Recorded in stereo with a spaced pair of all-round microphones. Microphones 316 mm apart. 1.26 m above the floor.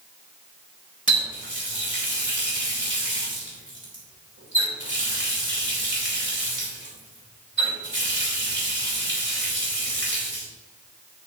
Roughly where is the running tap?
Right.